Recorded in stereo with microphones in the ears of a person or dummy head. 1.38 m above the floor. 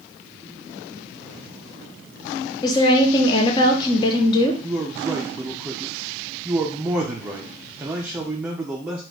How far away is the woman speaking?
About 0.8 m.